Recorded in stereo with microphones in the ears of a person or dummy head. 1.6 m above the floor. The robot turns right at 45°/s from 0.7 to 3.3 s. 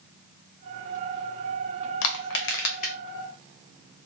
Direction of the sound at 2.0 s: 65° left (ahead or behind).